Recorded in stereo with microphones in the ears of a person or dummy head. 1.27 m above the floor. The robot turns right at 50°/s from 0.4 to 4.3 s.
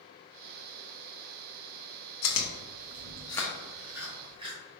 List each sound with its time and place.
2.2 s chewing: 60° left (ahead or behind), 0.7 m; by 4.6 s 30° right (ahead or behind), 0.7 m